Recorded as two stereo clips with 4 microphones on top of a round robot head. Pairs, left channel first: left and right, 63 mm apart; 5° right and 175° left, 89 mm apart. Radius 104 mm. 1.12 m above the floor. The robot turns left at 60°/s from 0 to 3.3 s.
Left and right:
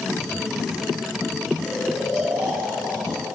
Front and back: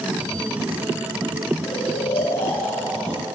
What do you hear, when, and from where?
1.6 s snoring: 20° left, 5 m; by 3.2 s 75° right, 5 m